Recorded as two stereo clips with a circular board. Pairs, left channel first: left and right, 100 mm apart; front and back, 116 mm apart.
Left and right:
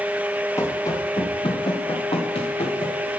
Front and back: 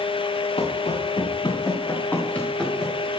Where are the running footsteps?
30° left, 2.5 m; by 3.1 s 90° left, 3.5 m.